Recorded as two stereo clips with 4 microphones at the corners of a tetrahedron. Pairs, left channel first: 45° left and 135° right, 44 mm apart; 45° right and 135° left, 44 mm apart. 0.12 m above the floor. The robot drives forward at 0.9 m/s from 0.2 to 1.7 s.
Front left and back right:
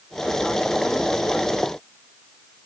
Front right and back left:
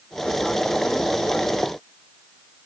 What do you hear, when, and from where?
Only background noise.